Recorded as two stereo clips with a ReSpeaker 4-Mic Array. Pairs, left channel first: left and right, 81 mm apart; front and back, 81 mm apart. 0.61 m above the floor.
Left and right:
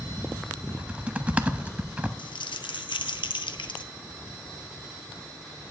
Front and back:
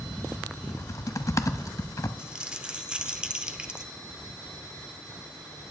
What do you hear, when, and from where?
0.7 s typing on a keyboard: 25° right, 0.5 m
2.2 s crumpling: 100° left, 0.6 m